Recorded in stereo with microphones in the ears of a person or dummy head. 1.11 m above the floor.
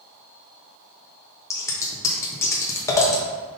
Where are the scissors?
15° left (ahead or behind), 0.9 m.